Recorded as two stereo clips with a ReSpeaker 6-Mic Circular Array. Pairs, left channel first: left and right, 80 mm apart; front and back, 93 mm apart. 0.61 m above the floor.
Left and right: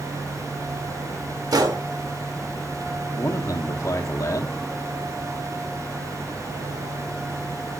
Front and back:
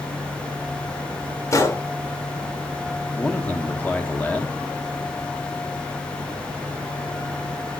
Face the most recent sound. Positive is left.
turn(degrees=65)